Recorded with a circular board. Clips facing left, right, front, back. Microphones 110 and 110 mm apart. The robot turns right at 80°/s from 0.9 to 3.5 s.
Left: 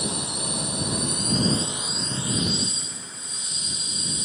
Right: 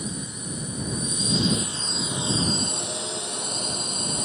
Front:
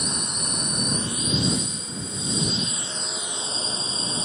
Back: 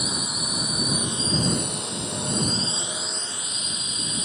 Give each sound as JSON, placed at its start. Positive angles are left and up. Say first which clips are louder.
{"t": 0.0, "sound": "a drone", "louder": "left 3 dB, back 1 dB", "azimuth_deg": 95}